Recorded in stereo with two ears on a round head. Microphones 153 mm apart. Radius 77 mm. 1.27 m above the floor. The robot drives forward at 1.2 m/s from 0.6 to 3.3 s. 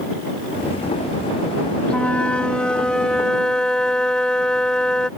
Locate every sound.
1.9 s a flute: 5° left (ahead or behind)